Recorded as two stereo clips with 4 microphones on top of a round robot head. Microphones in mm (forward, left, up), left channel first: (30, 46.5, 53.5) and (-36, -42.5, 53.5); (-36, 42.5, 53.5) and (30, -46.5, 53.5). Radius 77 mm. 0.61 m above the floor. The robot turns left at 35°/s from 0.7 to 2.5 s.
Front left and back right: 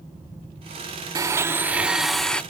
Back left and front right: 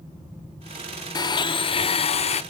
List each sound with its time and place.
1.1 s a blender: 175° left, 0.7 m; by 2.4 s 135° left, 0.7 m